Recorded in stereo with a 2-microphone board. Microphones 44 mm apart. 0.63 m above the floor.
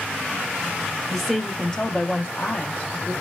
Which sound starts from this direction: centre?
A woman speaking, at 1.1 s.